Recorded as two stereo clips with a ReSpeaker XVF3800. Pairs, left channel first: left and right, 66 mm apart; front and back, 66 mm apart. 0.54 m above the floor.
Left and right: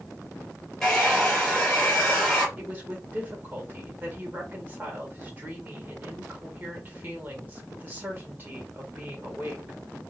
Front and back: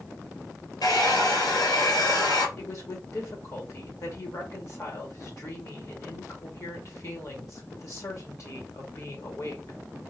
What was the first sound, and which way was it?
A hair dryer, 5° left.